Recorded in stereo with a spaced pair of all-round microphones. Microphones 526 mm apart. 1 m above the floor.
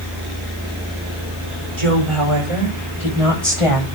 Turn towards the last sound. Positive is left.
turn(degrees=-80)